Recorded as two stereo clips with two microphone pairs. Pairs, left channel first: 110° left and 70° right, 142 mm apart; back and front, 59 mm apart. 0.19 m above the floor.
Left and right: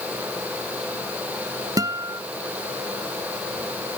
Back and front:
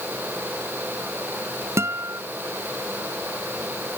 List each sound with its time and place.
1.8 s a guitar: 10° right